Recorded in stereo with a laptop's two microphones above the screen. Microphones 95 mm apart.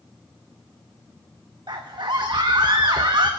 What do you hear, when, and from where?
1.7 s a scream: 55° right (ahead or behind), 0.9 m